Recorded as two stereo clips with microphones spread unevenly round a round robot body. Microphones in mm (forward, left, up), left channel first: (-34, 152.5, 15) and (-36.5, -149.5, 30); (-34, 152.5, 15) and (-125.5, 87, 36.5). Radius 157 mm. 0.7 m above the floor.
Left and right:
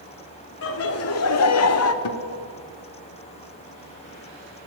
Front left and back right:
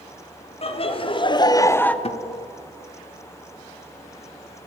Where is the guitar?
60° left, 1.2 m.